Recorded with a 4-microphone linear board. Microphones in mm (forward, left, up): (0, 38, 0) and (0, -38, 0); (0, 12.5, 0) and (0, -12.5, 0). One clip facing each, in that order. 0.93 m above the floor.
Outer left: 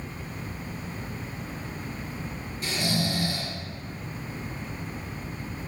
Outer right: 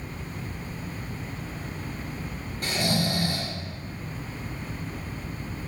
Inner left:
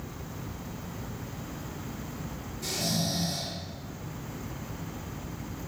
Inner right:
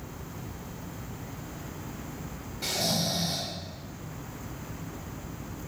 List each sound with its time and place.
2.6 s snoring: 45° right (ahead or behind), 0.8 m